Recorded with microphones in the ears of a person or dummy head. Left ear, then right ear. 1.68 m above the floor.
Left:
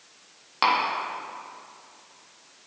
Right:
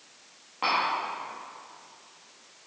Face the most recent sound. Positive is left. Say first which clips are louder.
# left 4 dB
turn(degrees=55)  # may be behind; listen again after turning